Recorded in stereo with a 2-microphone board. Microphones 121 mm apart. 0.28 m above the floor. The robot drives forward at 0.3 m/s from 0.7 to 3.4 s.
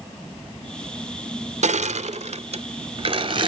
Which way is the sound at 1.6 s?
85° right.